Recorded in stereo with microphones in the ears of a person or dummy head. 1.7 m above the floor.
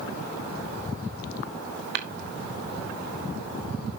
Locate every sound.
1.9 s tapping: 55° right (ahead or behind), 1.2 m